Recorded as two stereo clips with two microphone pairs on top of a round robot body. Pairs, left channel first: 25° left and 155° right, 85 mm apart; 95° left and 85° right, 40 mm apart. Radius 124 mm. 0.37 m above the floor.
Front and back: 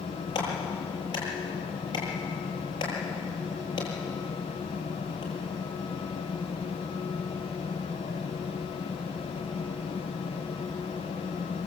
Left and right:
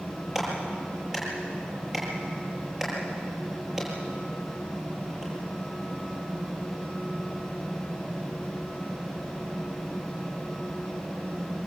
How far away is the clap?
About 9 m.